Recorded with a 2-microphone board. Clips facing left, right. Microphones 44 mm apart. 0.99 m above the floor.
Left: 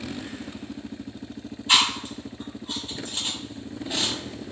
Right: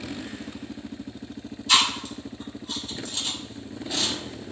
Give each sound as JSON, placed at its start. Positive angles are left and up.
{"t": 1.7, "sound": "chewing", "side_deg": 30, "distance_m": 1.0}